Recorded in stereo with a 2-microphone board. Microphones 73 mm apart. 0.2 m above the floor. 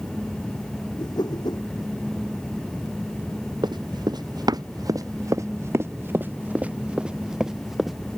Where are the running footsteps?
80° right; by 8.0 s centre (ahead or behind).